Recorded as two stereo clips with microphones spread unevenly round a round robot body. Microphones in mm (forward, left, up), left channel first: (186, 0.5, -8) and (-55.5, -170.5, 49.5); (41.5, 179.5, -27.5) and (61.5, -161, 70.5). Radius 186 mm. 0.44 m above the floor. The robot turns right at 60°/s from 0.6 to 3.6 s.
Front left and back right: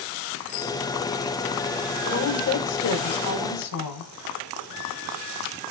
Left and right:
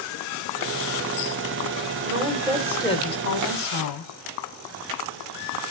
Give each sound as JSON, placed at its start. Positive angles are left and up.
{"t": 2.0, "sound": "a woman speaking", "azimuth_deg": -25, "distance_m": 2.0}